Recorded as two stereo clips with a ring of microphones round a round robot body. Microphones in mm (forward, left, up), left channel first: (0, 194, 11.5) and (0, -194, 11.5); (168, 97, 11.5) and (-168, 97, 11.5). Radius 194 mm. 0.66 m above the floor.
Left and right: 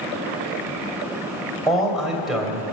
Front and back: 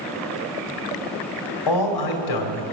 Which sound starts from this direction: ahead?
A man speaking, at 1.7 s.